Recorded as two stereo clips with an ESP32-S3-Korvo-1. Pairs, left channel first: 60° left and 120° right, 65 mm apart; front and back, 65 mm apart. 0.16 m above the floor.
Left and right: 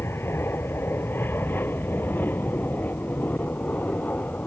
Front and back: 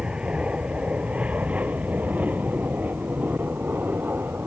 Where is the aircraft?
110° left; by 4.5 s 125° left.